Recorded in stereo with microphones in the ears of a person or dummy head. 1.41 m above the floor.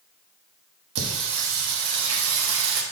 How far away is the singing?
About 1.3 m.